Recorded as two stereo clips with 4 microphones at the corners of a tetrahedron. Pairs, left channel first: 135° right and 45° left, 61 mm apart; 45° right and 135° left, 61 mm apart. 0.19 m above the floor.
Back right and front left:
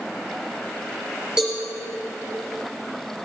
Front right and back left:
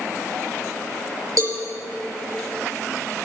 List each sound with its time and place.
1.4 s a cowbell: 120° left, 4 m